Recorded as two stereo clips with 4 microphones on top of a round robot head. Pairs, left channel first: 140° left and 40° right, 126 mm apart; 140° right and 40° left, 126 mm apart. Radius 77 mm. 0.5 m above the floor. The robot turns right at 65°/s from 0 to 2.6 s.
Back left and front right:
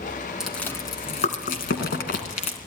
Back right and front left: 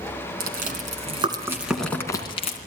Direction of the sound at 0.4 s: 45° left.